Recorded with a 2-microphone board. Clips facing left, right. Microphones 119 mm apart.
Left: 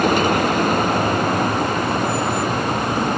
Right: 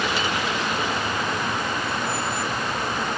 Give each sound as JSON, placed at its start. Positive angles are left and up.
{"t": 0.0, "sound": "a vehicle", "side_deg": 50}